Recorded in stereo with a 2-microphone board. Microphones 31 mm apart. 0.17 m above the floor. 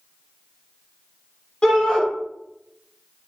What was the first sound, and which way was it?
A shout, 25° left (ahead or behind).